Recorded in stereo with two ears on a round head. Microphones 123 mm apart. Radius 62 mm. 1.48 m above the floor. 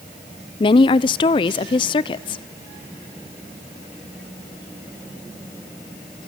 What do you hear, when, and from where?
0.6 s a woman speaking: 35° left (ahead or behind), 0.6 m